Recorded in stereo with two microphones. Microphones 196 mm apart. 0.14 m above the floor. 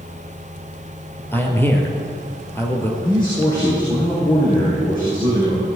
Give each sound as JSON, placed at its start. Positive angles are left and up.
{"t": 1.3, "sound": "a man speaking", "side_deg": 10, "distance_m": 2.5}
{"t": 3.0, "sound": "a man speaking", "side_deg": 25, "distance_m": 6.0}